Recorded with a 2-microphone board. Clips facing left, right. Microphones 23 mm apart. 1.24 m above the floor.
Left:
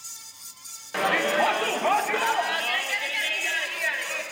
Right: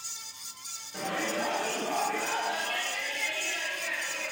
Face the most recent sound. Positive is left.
turn(degrees=75)  # may be behind; listen again after turning